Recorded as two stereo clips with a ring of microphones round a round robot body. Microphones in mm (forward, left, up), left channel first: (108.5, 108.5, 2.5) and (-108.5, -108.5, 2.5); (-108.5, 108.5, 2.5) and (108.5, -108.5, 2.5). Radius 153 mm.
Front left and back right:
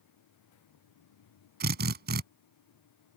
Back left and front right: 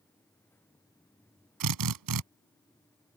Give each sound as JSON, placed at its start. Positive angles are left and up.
{"t": 1.6, "sound": "a drill", "azimuth_deg": -75}